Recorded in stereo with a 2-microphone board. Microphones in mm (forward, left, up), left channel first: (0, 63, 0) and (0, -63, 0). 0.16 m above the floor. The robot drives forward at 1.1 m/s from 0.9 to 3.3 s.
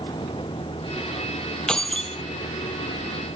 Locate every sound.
0.0 s a vehicle: 40° left (ahead or behind); by 3.4 s 70° left (ahead or behind)
1.7 s keys jangling: 5° left (ahead or behind)